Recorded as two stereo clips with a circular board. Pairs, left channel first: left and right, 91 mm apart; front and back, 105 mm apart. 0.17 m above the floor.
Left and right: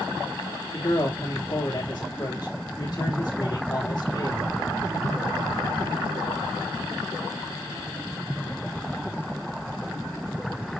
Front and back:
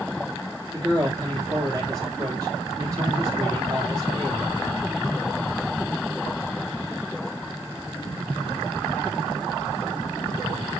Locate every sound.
0.7 s a man speaking: 125° left, 5.5 m